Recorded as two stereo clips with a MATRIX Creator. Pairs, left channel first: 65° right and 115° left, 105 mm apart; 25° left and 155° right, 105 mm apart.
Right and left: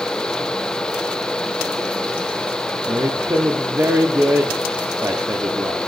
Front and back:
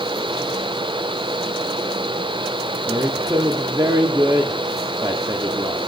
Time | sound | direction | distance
2.9 | a woman speaking | 165° left | 0.8 m